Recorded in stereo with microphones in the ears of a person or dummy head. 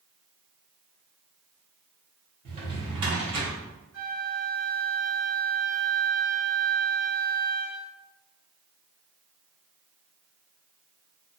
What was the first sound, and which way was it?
A drawer, 30° right (ahead or behind).